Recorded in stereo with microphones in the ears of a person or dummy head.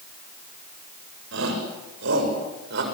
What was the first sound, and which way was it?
A shout, 70° right (ahead or behind).